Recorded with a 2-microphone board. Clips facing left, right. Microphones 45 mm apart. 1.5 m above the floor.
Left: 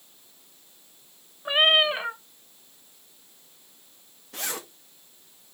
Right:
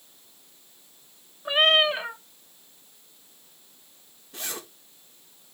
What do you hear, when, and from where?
1.4 s a cat meowing: 10° left (ahead or behind), 0.7 m
4.3 s a zipper: 80° left, 2.0 m